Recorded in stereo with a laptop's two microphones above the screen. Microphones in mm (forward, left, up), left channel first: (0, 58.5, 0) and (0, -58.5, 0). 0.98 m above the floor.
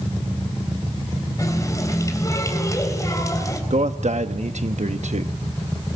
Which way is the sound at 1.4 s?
30° left (ahead or behind).